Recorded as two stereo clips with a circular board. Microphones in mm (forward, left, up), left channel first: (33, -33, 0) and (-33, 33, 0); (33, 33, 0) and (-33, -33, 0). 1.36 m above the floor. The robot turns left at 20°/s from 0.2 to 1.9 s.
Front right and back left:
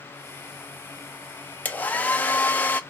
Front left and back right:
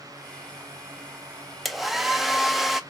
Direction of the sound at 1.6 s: 50° right.